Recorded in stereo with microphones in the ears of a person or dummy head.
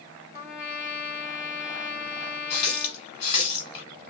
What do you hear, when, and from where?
0.3 s a trumpet: 55° left (ahead or behind), 1.2 m
2.5 s a running tap: 40° left (ahead or behind), 1.3 m